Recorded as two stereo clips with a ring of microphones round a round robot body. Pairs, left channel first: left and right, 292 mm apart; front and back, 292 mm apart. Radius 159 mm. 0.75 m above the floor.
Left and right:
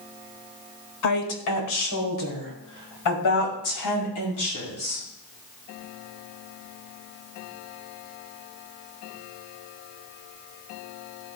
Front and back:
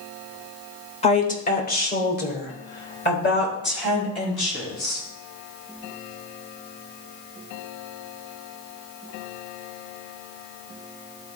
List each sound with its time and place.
1.0 s a woman speaking: 65° left, 1.6 m; by 5.0 s 50° left, 6.5 m